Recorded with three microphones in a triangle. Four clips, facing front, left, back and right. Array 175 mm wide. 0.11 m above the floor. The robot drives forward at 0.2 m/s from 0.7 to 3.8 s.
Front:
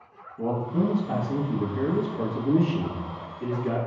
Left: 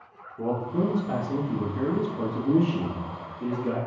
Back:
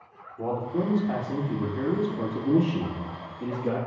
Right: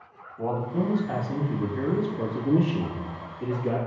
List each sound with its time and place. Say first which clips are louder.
0.4 s a man speaking: left 1 dB, front 2 dB; 60° left, 1.1 m; by 3.8 s 145° left, 1.1 m